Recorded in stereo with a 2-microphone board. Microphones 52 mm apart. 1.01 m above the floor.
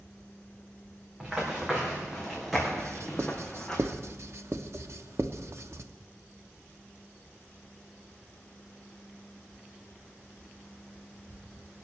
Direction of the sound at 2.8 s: 60° right (ahead or behind).